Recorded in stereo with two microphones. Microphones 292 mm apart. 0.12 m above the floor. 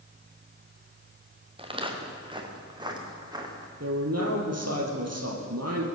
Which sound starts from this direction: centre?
Footsteps, at 1.6 s.